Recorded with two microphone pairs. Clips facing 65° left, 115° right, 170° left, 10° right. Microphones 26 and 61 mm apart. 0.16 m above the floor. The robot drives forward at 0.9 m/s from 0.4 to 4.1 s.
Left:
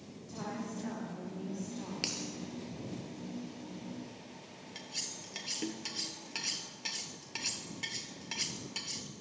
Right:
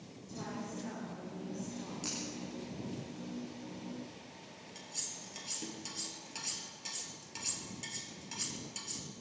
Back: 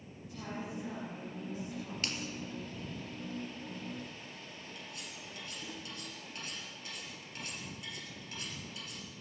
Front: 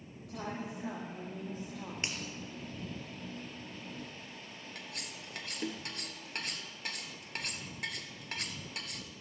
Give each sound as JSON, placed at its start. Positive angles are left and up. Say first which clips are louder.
{"t": 0.2, "sound": "a woman speaking", "louder": "left 2 dB, front 2 dB", "azimuth_deg": 0, "distance_m": 8.0}
{"t": 2.0, "sound": "a finger snap", "louder": "left 5 dB, front 1 dB", "azimuth_deg": 60, "distance_m": 3.0}
{"t": 4.8, "sound": "cutlery clinking", "louder": "left 4 dB, front 1 dB", "azimuth_deg": 10, "distance_m": 1.7}